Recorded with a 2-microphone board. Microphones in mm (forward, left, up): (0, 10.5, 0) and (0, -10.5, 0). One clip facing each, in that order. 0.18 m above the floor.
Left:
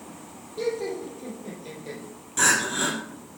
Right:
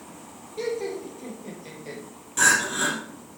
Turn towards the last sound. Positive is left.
turn(degrees=-5)  # may be behind; listen again after turning